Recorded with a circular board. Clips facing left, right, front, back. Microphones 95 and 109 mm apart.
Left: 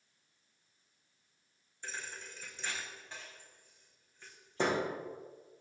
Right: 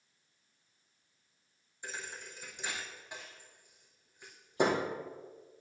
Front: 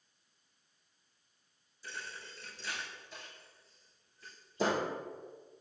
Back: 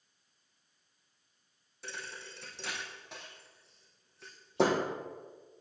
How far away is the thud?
About 1.8 m.